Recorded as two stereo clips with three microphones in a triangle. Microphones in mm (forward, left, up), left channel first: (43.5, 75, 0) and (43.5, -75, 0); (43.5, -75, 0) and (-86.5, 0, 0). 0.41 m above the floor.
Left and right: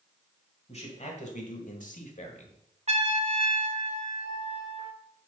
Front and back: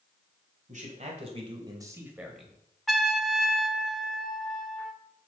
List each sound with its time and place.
0.7 s a man speaking: 125° left, 1.9 m; by 2.6 s 55° left, 1.6 m
2.9 s a trumpet: 120° right, 0.9 m